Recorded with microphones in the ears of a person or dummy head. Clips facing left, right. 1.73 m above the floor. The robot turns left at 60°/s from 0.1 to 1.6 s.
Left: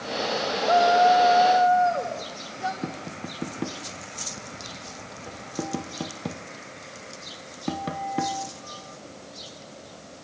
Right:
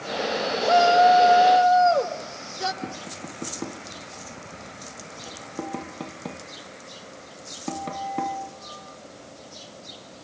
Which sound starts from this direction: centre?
Tapping, at 2.8 s.